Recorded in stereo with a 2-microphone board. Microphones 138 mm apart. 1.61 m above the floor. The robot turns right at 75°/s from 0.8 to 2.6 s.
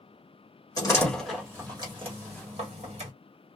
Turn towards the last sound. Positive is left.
turn(degrees=-55)  # may be behind; listen again after turning